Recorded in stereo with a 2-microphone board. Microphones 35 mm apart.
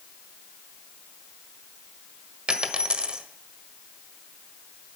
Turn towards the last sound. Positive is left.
turn(degrees=-30)  # may be behind; listen again after turning